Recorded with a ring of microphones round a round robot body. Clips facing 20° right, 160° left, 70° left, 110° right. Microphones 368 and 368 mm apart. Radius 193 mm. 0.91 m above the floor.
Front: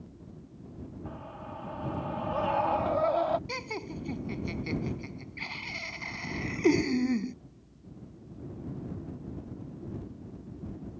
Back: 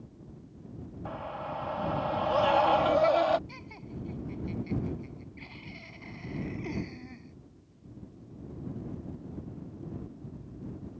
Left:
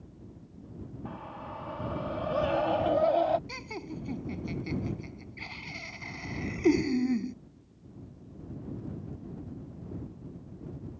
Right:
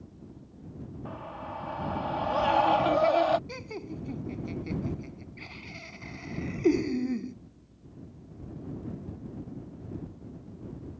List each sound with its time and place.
1.1 s a scream: 155° left; by 3.4 s 165° right
3.5 s laughter: straight ahead